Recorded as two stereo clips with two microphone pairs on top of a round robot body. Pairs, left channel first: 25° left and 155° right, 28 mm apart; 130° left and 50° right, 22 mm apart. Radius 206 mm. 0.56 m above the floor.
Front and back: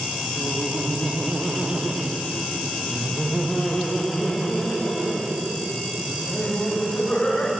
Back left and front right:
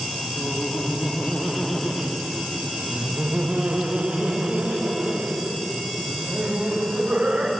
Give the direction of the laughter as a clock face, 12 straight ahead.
6 o'clock.